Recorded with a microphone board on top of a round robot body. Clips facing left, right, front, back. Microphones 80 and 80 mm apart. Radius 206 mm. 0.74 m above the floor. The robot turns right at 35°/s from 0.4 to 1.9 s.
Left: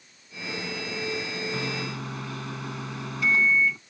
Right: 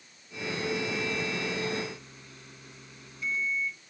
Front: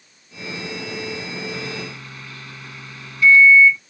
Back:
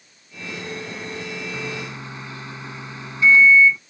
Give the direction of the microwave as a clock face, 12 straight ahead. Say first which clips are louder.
Left 1 dB, even; 9 o'clock.